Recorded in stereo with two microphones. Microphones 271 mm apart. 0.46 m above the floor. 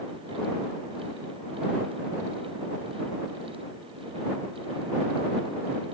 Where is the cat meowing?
I don't hear a cat meowing.